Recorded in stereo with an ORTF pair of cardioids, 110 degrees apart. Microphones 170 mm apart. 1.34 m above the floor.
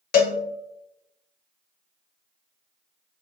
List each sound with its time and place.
0.1 s a cowbell: 60° left, 0.6 m